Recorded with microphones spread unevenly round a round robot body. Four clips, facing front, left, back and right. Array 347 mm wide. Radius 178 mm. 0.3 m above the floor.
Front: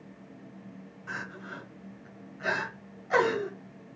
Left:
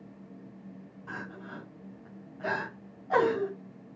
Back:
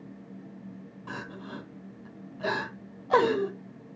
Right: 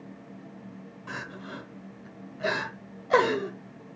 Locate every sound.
1.1 s crying: 140° right, 1.5 m